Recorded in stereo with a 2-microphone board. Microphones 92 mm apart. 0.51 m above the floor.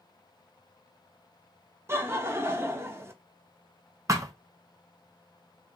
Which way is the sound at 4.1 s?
35° right (ahead or behind).